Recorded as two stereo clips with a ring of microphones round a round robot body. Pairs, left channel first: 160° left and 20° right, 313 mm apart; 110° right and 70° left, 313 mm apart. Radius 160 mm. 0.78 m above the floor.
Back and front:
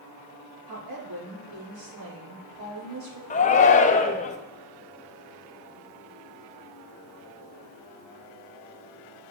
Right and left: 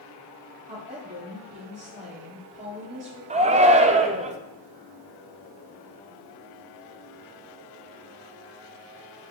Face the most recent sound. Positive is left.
turn(degrees=115)